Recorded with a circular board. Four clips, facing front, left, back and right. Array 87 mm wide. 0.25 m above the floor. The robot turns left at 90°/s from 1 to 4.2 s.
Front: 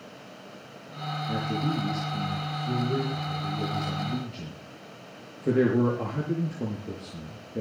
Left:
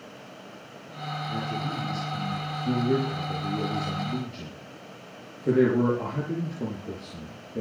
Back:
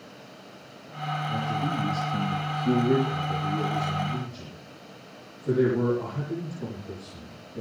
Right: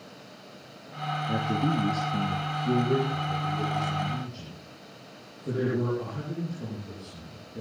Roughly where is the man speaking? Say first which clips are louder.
Right 6 dB, front 2 dB; ahead right.